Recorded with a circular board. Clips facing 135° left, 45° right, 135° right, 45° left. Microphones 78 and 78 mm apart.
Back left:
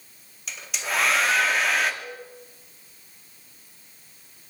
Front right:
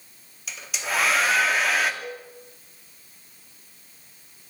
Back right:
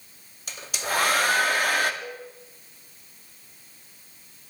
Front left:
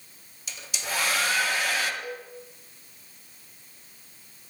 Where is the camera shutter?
No camera shutter in this recording.